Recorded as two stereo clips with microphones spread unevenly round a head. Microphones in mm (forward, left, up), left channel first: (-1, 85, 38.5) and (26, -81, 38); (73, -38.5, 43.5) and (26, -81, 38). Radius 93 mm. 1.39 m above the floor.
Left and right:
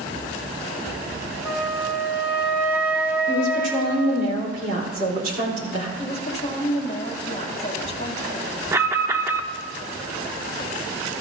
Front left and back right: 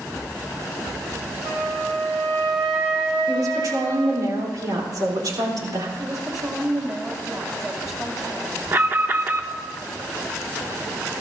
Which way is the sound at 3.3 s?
125° right.